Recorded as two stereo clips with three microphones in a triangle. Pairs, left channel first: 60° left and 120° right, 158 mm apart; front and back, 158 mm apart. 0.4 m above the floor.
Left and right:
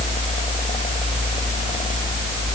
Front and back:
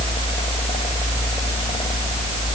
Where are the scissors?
No scissors in this recording.